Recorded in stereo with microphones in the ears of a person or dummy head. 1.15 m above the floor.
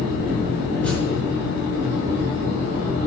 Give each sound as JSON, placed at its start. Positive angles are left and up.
{"t": 0.8, "sound": "a thud", "side_deg": 5, "distance_m": 5.0}